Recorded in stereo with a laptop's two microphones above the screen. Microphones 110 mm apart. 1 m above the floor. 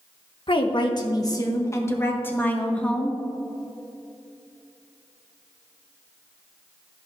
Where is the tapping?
I don't hear tapping.